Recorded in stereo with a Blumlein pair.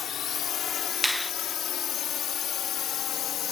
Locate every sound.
0.0 s a drone: 25° left; by 3.5 s 30° left
1.0 s a finger snap: 5° left